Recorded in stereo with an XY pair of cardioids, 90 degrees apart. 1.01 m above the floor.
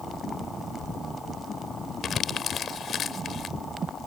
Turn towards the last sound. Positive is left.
turn(degrees=60)